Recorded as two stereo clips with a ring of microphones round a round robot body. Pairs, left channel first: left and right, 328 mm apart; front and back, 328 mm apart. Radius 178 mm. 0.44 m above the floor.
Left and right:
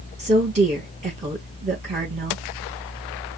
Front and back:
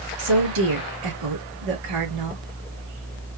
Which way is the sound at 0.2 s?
160° right.